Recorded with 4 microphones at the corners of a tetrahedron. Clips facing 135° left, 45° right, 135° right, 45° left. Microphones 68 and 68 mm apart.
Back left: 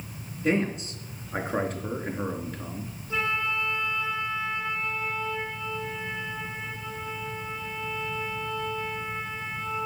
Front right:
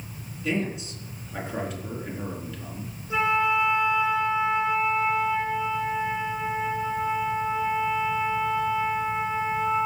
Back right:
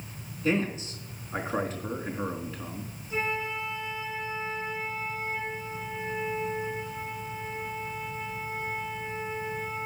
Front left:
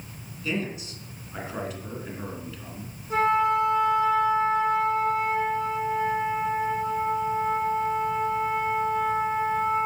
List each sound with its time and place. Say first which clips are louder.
0.4 s a man speaking: back left 3 dB, back right 3 dB; 175° left, 3.5 m
3.1 s a flute: front right 6 dB, front left 10 dB; 25° left, 2 m